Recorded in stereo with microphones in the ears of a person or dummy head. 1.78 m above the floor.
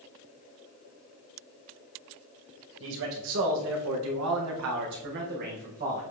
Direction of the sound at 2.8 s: 65° right (ahead or behind).